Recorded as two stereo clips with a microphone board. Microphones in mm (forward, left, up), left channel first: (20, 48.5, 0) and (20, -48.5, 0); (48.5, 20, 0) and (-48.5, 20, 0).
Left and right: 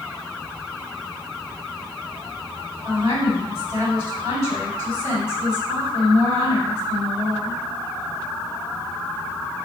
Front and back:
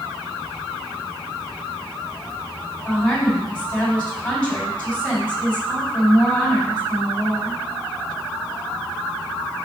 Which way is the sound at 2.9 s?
70° right.